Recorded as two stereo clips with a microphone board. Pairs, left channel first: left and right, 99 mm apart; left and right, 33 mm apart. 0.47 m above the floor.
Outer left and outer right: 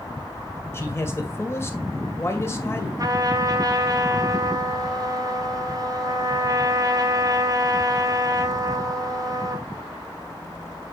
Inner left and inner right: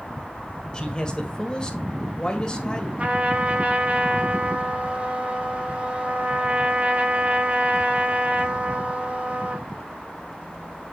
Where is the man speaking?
25° left (ahead or behind), 1.8 m.